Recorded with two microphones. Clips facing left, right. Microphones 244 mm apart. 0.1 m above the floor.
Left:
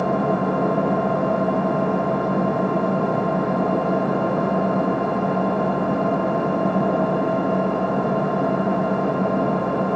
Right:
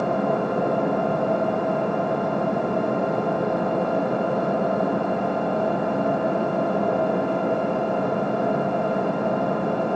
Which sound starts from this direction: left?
An engine running, at 0.0 s.